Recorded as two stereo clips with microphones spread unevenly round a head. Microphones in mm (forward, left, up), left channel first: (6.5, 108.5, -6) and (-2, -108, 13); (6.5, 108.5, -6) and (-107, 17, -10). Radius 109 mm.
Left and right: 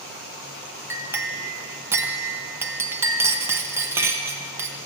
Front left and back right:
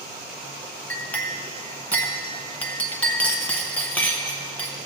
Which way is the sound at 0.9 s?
30° right.